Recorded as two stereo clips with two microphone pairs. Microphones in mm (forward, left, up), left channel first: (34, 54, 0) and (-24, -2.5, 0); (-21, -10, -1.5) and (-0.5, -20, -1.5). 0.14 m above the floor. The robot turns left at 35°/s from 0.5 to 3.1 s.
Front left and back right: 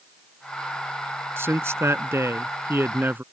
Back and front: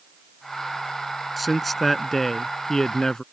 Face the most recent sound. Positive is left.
turn(degrees=-175)